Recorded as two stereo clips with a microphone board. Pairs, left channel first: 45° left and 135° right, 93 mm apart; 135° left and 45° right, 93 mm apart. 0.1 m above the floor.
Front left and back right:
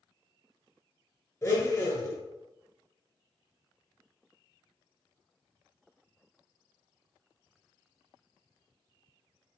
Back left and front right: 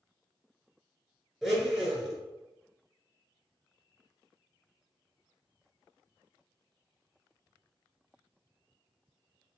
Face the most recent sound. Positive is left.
turn(degrees=40)